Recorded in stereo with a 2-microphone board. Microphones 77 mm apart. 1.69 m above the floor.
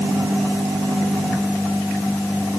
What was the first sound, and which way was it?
Only background noise.